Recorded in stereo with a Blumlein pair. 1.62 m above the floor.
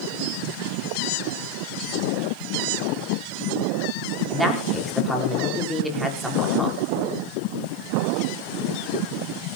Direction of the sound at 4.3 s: Straight ahead.